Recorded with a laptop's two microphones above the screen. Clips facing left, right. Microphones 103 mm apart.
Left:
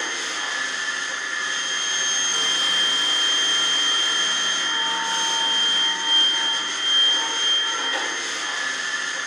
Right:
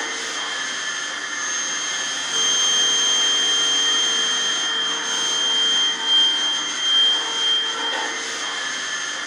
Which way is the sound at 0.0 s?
80° right.